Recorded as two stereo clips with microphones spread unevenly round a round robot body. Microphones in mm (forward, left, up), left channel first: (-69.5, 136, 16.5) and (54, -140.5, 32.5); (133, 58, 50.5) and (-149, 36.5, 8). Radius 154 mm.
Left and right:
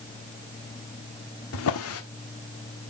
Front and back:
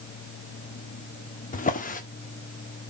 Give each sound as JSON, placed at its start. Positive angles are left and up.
{"t": 1.5, "sound": "a drawer", "azimuth_deg": 70, "distance_m": 1.6}